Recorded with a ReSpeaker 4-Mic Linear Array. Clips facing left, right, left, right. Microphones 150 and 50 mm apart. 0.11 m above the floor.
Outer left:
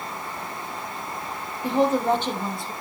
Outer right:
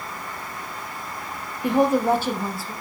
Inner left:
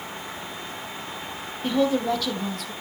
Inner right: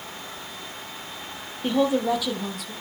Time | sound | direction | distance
1.6 | a woman speaking | 15° right (ahead or behind) | 2.5 m